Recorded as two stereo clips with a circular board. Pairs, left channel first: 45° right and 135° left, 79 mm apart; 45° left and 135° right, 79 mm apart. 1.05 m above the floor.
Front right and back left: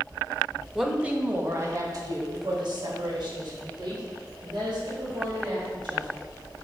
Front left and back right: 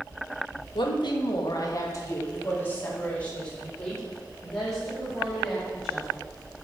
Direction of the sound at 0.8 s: 50° left.